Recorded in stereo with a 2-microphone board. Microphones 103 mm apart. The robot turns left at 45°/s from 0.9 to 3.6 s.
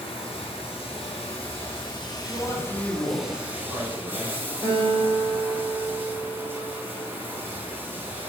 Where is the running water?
100° left, 2.5 m; by 8.3 s 20° right, 2.5 m.